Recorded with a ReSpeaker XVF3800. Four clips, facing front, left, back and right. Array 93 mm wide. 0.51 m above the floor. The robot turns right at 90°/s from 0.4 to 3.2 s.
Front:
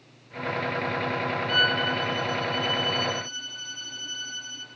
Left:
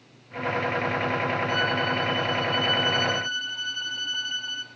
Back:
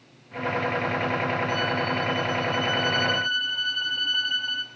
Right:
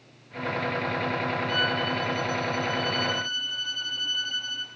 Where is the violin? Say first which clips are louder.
Left 2 dB, front 1 dB; 5° left, 1.8 m; by 4.7 s 160° left, 1.8 m.